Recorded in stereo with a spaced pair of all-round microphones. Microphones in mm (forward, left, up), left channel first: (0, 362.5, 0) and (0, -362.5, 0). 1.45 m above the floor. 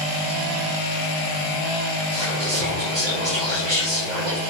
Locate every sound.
2.1 s whispering: 80° right, 1.8 m